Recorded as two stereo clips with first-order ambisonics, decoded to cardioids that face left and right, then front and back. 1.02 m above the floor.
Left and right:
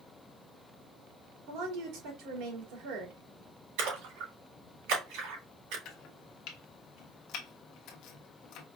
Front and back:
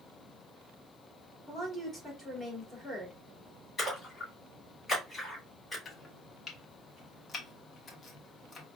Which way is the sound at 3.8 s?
80° right.